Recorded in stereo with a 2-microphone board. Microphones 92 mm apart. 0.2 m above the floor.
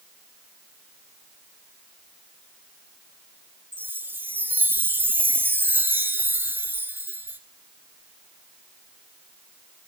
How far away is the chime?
About 0.8 m.